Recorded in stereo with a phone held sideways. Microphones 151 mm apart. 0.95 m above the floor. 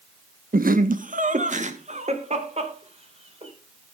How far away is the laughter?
About 1.0 m.